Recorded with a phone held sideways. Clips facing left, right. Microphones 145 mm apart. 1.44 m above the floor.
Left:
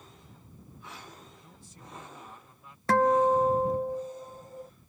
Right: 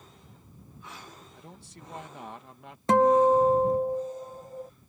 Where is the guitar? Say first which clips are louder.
Right 3 dB; 20° right (ahead or behind).